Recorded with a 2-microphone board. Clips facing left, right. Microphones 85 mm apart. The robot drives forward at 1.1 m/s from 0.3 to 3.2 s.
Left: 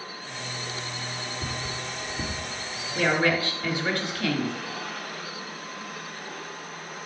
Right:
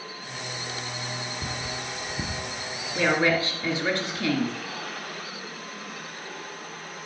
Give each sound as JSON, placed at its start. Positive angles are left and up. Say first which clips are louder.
{"t": 1.4, "sound": "cutlery clinking", "louder": "even", "side_deg": -10, "distance_m": 1.7}
{"t": 3.0, "sound": "a woman speaking", "louder": "right 1 dB", "side_deg": -20, "distance_m": 1.9}